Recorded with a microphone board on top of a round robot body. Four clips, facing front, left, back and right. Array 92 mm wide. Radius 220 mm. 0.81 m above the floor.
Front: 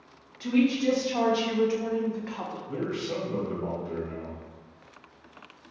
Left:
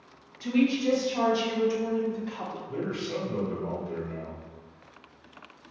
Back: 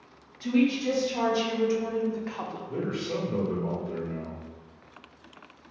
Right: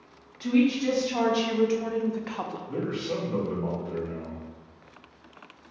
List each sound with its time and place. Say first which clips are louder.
0.4 s a woman speaking: right 2 dB, front 1 dB; 55° right, 1.5 m; by 2.6 s 105° right, 0.8 m
2.7 s a man speaking: right 1 dB, even; 40° right, 1.7 m